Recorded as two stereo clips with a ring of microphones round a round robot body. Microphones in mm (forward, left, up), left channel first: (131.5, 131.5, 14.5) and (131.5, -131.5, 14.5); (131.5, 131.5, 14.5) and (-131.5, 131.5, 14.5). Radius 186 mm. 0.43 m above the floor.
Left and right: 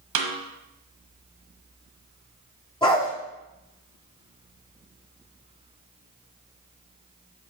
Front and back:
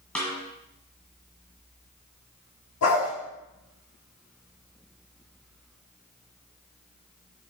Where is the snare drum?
85° right, 1.2 m.